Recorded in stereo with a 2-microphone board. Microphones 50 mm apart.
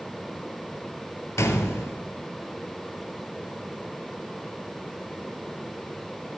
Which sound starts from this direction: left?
A gunshot, at 1.4 s.